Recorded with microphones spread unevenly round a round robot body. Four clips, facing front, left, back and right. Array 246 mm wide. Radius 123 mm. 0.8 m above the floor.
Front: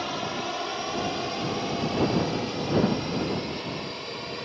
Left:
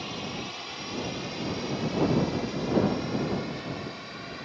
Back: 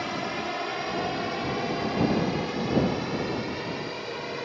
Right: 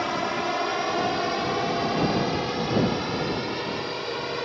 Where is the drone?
90° right; by 4.5 s 100° right.